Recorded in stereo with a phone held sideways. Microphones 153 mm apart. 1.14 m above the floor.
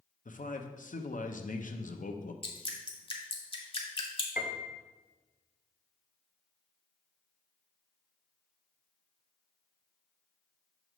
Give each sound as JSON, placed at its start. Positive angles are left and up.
{"t": 0.2, "sound": "a man speaking", "side_deg": 60, "distance_m": 0.7}
{"t": 2.4, "sound": "dripping", "side_deg": 35, "distance_m": 1.0}
{"t": 4.4, "sound": "a piano", "side_deg": 65, "distance_m": 0.6}